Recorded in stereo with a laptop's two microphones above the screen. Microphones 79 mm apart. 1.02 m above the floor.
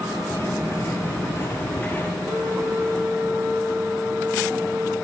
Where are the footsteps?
30° left (ahead or behind), 1.3 m; by 2.1 s 20° left (ahead or behind), 1.2 m.